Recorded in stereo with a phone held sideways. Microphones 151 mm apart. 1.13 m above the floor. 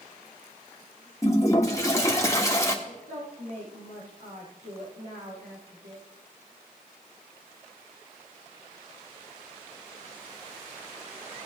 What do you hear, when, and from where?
1.2 s a toilet flushing: 20° left (ahead or behind), 1.4 m
2.9 s a woman speaking: 75° right (ahead or behind), 6.5 m